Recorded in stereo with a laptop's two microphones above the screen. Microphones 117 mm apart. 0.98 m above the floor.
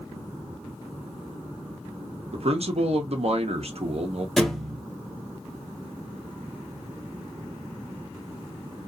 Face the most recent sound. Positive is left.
turn(degrees=5)  # may be behind; listen again after turning